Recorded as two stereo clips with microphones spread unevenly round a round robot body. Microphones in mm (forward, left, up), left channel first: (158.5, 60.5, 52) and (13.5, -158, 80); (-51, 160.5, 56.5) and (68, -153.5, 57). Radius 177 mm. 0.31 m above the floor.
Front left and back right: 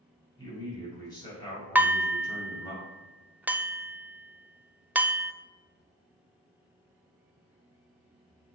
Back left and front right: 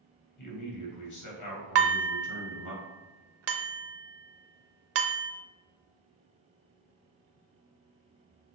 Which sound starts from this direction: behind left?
A man speaking, at 0.4 s.